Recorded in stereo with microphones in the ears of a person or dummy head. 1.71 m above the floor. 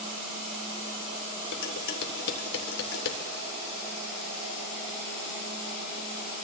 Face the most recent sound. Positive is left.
turn(degrees=65)  # may be behind; listen again after turning